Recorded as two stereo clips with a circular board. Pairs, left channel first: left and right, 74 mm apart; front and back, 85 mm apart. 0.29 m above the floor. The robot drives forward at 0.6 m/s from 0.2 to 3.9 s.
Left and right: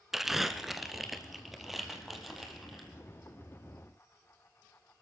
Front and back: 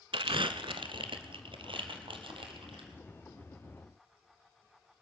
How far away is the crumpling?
About 0.5 m.